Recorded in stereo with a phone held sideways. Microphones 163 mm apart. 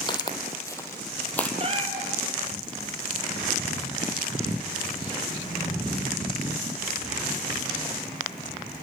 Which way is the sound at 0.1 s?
25° left (ahead or behind).